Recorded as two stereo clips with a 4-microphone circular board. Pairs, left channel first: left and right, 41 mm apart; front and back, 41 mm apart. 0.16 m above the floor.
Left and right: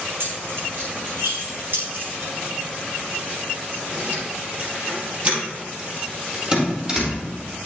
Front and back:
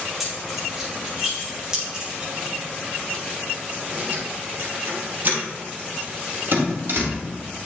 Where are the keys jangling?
90° right, 3.5 m; by 7.2 s 160° right, 4 m.